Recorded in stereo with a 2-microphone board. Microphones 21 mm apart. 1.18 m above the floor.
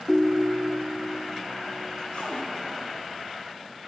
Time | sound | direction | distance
0.1 | a ringtone | centre (ahead or behind) | 0.6 m
2.1 | a cupboard door | 70° left (ahead or behind) | 1.8 m